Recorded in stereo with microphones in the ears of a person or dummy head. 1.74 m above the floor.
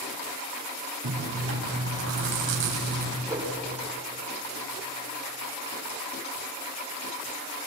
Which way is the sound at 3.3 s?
20° right (ahead or behind).